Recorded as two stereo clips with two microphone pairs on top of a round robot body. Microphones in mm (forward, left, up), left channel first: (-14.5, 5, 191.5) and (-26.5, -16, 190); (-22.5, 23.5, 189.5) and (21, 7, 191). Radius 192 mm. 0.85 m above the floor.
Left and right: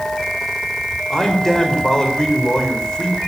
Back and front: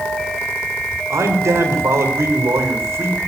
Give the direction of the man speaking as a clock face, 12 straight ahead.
12 o'clock.